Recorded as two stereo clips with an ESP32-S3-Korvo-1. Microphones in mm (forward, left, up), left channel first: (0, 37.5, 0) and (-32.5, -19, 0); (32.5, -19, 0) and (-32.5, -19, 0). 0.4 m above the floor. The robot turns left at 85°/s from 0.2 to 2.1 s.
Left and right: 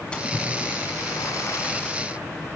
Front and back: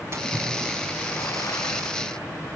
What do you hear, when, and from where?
0.1 s a splash: 135° left, 2 m; by 2.0 s 20° right, 2 m